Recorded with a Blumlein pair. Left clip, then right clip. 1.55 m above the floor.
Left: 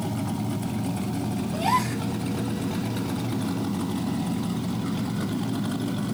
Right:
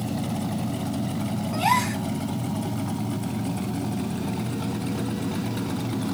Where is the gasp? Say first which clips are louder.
Right 2 dB; 30° right, 1.3 m.